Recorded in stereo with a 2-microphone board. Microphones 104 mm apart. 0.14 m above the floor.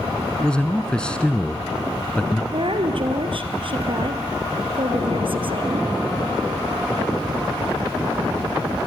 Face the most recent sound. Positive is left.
turn(degrees=-55)  # may be behind; listen again after turning